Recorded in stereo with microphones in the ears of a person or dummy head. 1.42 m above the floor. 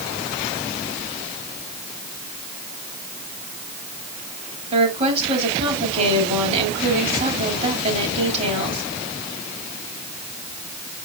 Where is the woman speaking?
35° right (ahead or behind), 3.5 m.